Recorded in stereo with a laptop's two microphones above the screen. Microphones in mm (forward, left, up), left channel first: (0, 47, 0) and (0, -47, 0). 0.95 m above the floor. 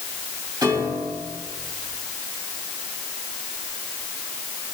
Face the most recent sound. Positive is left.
turn(degrees=-35)  # may be behind; listen again after turning